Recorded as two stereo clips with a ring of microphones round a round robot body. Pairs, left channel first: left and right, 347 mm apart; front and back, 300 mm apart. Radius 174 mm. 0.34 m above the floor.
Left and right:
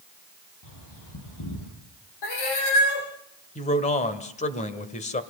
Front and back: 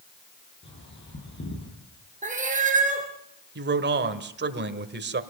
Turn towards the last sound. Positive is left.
turn(degrees=150)